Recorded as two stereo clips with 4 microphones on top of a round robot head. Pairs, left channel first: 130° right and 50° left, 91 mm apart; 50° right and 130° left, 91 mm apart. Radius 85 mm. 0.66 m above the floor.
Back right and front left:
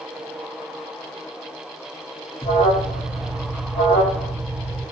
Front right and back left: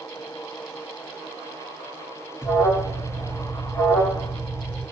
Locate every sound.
2.4 s an alarm: 120° right, 1.7 m